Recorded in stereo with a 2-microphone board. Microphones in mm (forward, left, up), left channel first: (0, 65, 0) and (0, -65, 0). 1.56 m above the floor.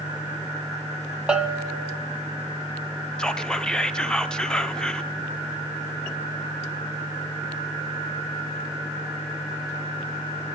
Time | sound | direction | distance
1.3 | a bell | 5° right (ahead or behind) | 0.9 m
3.2 | whispering | 5° left (ahead or behind) | 0.8 m